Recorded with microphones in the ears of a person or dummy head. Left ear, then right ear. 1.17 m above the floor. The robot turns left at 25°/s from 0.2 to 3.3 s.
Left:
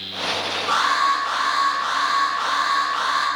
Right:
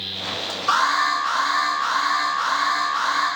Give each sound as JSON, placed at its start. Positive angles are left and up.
{"t": 0.7, "sound": "an alarm", "azimuth_deg": -155, "distance_m": 4.0}